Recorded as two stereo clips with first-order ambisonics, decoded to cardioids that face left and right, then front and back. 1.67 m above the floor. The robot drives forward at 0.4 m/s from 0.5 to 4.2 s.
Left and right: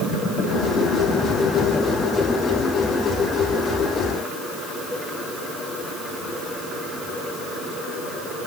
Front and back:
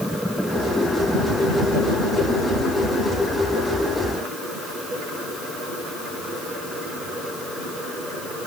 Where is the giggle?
No giggle in this recording.